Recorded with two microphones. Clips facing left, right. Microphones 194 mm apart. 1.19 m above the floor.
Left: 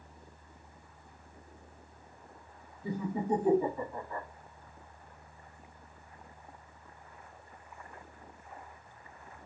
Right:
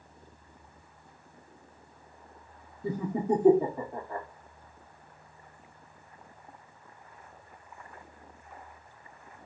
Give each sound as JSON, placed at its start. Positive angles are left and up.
{"t": 2.8, "sound": "laughter", "side_deg": -50, "distance_m": 0.8}